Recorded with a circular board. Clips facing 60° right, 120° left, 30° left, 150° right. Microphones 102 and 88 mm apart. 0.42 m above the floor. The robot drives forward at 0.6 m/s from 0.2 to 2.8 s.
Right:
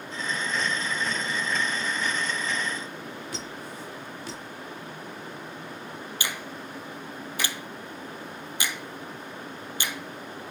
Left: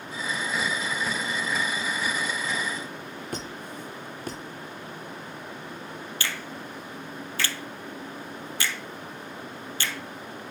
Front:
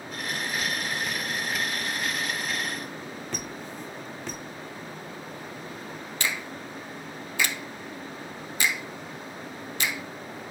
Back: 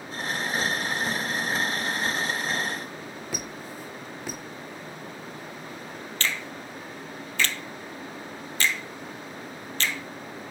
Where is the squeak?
130° left, 1.1 m.